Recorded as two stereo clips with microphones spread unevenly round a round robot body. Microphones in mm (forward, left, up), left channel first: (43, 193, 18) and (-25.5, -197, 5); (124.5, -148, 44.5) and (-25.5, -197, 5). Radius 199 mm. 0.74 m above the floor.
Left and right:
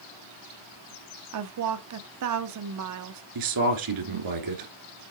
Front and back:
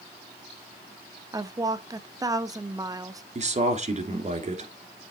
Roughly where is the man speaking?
Behind right.